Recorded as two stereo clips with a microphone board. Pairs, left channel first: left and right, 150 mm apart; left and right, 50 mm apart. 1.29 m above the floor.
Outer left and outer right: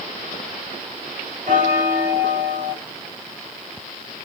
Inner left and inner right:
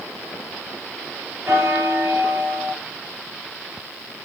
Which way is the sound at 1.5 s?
55° right (ahead or behind).